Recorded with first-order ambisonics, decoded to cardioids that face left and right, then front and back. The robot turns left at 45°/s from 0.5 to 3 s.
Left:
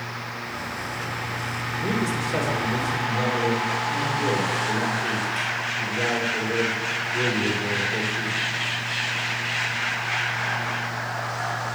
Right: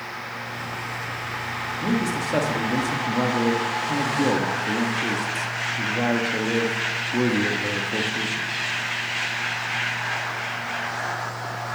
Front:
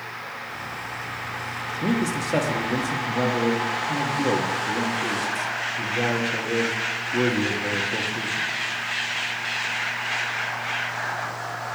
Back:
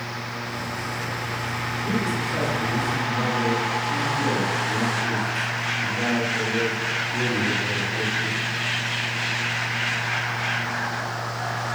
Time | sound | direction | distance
1.8 | a man speaking | 10° right | 1.8 m